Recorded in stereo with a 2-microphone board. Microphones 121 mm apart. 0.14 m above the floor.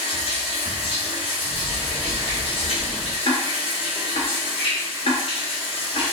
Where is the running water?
50° left (ahead or behind), 1.3 m.